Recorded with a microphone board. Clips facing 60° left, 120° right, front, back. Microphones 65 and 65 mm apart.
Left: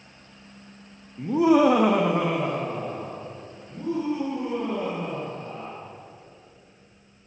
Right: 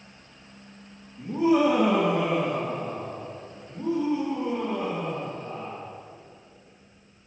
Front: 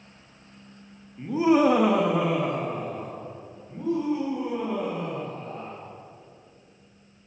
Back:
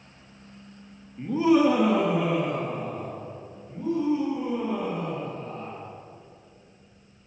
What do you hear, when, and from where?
1.2 s laughter: 95° left, 0.9 m; by 5.8 s 25° right, 6 m